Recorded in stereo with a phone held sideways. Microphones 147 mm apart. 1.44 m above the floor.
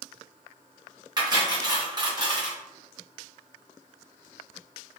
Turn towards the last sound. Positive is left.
turn(degrees=-30)  # may be behind; listen again after turning